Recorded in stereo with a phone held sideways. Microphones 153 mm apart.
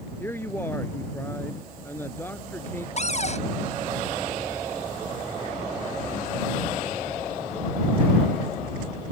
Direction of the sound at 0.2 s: 15° left (ahead or behind).